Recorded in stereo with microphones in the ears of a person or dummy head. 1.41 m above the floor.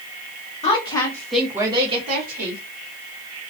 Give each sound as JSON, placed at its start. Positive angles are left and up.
{"t": 0.6, "sound": "a woman speaking", "side_deg": 35, "distance_m": 0.9}